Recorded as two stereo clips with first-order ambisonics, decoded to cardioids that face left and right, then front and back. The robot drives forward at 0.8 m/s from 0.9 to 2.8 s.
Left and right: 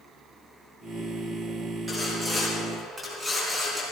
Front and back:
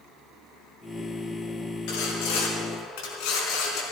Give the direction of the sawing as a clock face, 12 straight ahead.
12 o'clock.